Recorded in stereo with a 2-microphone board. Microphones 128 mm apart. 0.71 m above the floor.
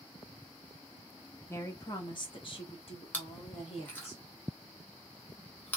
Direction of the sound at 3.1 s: 15° left (ahead or behind).